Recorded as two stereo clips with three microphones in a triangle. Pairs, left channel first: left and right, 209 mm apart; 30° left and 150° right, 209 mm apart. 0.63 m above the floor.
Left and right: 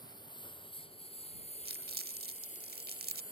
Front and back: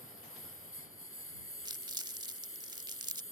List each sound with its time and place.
0.0 s a lawn mower: 20° left; by 3.3 s 45° left
1.6 s crumpling: 85° right